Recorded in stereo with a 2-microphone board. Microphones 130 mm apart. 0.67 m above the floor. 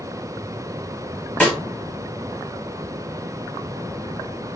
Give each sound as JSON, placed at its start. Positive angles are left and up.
{"t": 1.4, "sound": "a snare drum", "side_deg": 10, "distance_m": 1.4}